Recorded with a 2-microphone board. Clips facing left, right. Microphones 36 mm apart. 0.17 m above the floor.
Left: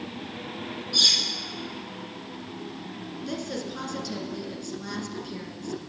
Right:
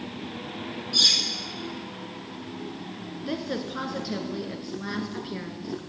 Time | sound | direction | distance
0.9 | cutlery clinking | 5° left (ahead or behind) | 3 m
3.3 | a woman speaking | 25° right (ahead or behind) | 1.9 m